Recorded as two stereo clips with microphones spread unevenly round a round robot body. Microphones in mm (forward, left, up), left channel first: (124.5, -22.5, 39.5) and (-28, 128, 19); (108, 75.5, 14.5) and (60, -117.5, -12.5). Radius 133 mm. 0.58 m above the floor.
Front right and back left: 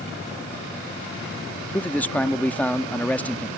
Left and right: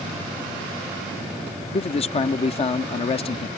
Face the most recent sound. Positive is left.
turn(degrees=40)